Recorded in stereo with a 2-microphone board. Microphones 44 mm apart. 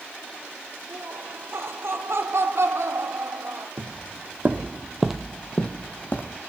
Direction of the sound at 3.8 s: 60° right (ahead or behind).